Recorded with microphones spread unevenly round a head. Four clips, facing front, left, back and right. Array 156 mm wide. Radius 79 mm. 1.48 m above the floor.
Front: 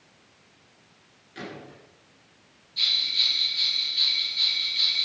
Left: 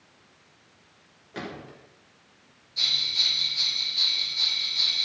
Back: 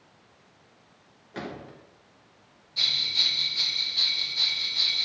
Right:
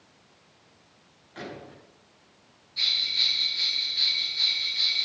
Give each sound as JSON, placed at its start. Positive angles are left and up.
{"t": 1.3, "sound": "a gunshot", "azimuth_deg": 125, "distance_m": 5.5}
{"t": 2.8, "sound": "a bell", "azimuth_deg": 160, "distance_m": 1.8}